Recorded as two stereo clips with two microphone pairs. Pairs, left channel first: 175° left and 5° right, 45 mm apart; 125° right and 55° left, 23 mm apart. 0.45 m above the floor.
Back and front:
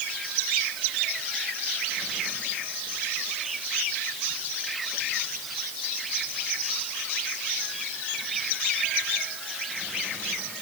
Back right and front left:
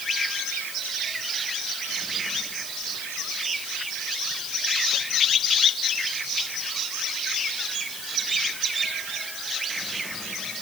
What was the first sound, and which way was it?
Only background noise.